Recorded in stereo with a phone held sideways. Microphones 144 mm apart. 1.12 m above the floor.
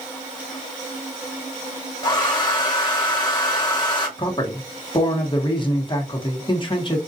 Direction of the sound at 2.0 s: 30° left (ahead or behind).